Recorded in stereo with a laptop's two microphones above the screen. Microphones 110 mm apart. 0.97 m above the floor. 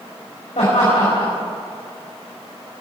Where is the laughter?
75° left (ahead or behind), 5 m.